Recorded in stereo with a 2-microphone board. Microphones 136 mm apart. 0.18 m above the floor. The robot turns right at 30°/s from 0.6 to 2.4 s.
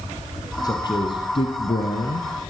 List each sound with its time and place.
0.6 s a man speaking: 35° left, 2.5 m; by 2.3 s 85° left, 2.5 m